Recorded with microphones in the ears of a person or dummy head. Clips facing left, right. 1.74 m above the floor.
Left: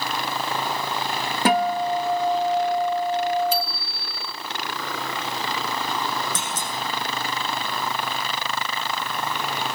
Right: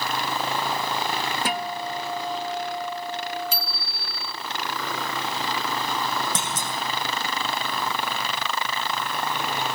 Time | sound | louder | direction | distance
1.4 | a guitar | left 8 dB | 45° left (ahead or behind) | 1.3 m
3.5 | a bicycle bell | left 7 dB | 70° right (ahead or behind) | 4 m
6.3 | a clunk | even | 75° right (ahead or behind) | 7 m